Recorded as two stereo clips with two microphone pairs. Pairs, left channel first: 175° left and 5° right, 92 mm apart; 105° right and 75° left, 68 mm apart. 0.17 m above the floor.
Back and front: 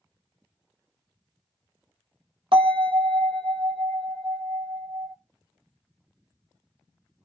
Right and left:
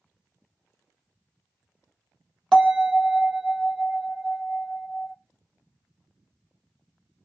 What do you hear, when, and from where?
2.5 s a bell: 15° right, 0.8 m